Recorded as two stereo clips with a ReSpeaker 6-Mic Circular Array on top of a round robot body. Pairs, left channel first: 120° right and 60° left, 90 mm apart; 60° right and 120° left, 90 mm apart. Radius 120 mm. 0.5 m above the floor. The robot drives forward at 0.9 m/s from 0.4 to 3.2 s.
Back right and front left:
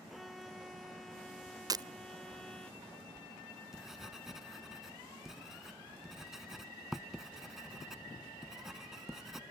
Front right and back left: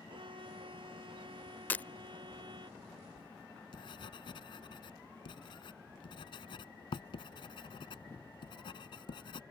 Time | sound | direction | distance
0.1 | a violin | 150° left | ?
1.7 | breaking glass | 10° left | ?
3.2 | writing | 25° right | ?